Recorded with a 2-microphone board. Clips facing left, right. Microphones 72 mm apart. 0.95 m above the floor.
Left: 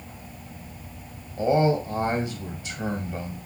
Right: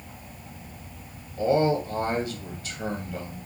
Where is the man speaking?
25° left (ahead or behind), 0.8 m.